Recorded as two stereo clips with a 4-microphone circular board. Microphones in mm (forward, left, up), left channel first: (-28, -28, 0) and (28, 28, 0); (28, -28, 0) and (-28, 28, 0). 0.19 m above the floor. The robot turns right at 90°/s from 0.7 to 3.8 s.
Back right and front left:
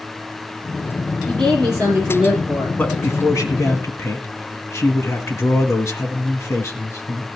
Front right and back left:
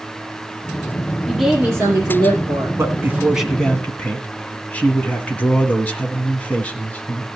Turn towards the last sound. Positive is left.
turn(degrees=-105)